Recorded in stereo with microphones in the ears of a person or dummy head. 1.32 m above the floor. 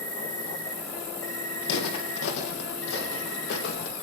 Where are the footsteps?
60° left (ahead or behind), 3 m; by 3.9 s 55° left (ahead or behind), 4 m.